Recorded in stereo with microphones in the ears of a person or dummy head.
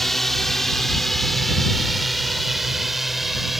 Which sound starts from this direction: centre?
A drone, at 0.0 s.